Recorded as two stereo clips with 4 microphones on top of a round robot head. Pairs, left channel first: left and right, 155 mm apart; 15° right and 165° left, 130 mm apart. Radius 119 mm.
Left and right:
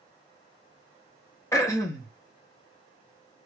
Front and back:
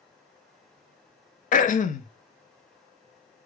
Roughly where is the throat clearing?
Ahead.